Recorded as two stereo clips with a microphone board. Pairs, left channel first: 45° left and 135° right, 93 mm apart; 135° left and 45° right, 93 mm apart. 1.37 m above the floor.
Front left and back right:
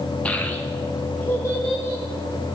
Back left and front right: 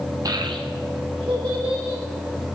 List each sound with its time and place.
0.2 s a child speaking: 25° right, 0.6 m; by 2.0 s 20° right, 3 m